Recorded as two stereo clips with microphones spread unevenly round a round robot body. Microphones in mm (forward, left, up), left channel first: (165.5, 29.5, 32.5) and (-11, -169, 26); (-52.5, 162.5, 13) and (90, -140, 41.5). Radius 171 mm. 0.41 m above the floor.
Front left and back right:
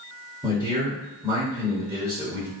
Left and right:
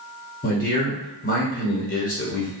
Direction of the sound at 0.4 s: 155° left.